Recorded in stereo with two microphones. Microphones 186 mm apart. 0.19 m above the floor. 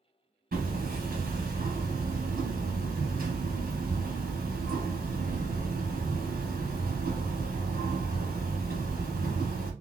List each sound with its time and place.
0.5 s hammering: 55° right (ahead or behind), 1.2 m